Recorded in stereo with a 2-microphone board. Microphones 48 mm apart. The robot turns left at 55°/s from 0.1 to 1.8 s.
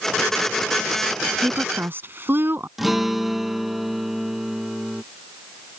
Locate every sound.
1.3 s a woman speaking: 15° right (ahead or behind); by 2.7 s 45° right (ahead or behind)
2.8 s a guitar: 5° right (ahead or behind)